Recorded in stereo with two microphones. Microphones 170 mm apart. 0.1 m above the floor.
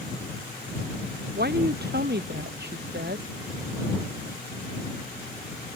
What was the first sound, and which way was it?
A woman speaking, 70° right (ahead or behind).